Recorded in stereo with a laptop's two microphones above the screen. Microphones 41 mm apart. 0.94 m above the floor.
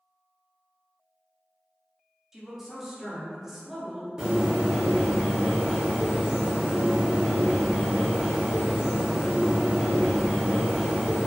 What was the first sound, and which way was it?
A woman speaking, 10° right (ahead or behind).